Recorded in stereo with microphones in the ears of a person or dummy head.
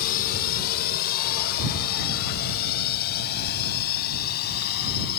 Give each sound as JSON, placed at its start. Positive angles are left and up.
{"t": 0.0, "sound": "a drone", "side_deg": 50}